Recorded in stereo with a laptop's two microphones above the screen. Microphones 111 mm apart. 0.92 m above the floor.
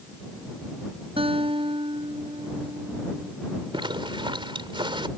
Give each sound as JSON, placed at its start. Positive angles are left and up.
{"t": 1.2, "sound": "a guitar", "side_deg": -60}
{"t": 3.7, "sound": "a zipper", "side_deg": -55}